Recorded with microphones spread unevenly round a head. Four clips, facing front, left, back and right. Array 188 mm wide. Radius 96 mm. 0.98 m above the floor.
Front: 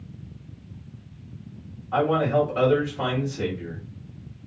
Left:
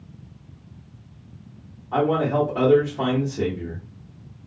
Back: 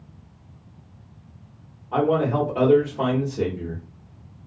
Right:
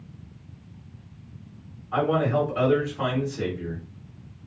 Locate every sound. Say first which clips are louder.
1.9 s a man speaking: left 2 dB, even; 140° left, 1.4 m